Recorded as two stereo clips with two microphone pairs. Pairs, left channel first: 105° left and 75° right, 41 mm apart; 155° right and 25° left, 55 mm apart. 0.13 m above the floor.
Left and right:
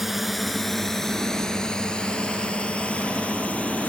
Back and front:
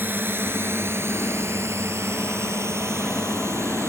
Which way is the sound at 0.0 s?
10° left.